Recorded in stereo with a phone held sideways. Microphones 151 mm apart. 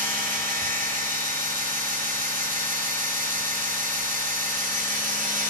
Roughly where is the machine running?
Right.